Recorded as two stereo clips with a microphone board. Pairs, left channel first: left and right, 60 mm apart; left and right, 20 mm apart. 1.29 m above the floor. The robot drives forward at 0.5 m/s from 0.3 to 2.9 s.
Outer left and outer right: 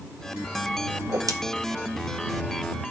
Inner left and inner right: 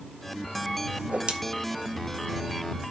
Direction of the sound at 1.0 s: 60° right (ahead or behind).